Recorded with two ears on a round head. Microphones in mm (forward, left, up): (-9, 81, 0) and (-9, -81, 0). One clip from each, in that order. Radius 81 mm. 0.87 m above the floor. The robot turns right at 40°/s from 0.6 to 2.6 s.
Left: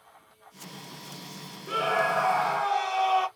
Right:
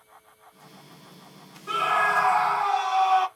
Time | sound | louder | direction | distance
1.7 | a scream | right 3 dB | 85° right | 1.6 m